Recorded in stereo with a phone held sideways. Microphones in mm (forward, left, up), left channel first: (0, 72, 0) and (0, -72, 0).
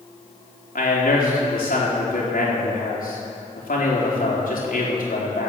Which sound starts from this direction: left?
A man speaking, at 0.8 s.